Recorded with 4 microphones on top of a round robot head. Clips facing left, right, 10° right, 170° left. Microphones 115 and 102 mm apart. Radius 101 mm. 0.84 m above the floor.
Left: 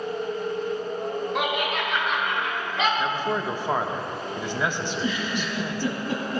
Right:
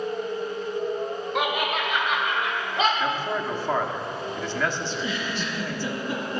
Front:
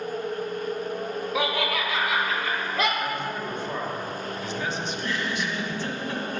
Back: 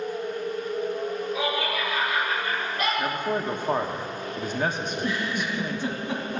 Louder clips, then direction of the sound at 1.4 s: Right 3 dB, front 5 dB; straight ahead.